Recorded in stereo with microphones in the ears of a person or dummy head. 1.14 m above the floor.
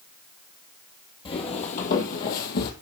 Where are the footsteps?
35° left (ahead or behind), 1.7 m; by 2.7 s 55° left (ahead or behind), 2.0 m.